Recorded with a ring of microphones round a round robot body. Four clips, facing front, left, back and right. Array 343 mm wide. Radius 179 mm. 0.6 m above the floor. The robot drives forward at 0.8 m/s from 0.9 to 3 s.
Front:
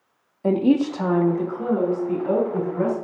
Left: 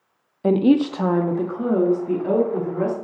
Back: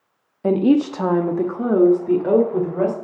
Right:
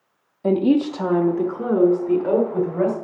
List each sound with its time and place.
0.4 s a woman speaking: 130° left, 0.7 m; by 2.9 s 175° left, 1.9 m